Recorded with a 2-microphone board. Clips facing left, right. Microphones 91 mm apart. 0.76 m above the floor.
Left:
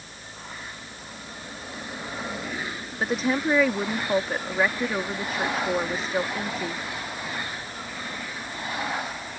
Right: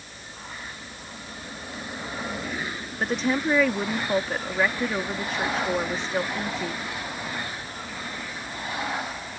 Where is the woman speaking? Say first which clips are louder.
Even; 5° left (ahead or behind).